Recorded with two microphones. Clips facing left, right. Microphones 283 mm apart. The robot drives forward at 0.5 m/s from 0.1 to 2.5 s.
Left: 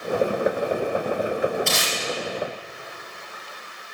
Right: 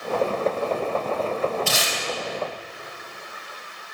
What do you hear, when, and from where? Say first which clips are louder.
1.7 s tape being pulled: even; 5° right (ahead or behind), 2.5 m